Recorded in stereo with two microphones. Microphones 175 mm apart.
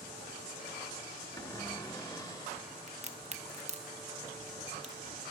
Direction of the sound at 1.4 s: 20° left (ahead or behind).